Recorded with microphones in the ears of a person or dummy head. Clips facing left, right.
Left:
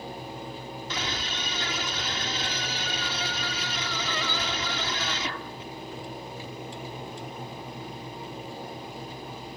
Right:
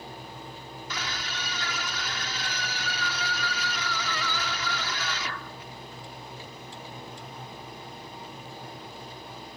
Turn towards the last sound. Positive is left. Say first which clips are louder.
# left 2 dB
turn(degrees=25)  # may be behind; listen again after turning